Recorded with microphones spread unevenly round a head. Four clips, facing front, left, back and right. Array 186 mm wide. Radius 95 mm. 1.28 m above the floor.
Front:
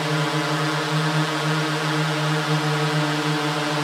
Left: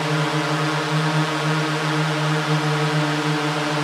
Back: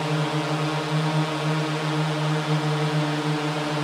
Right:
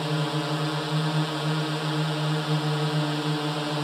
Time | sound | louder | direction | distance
0.0 | a drone | left 6 dB, front 2 dB | 70° left | ?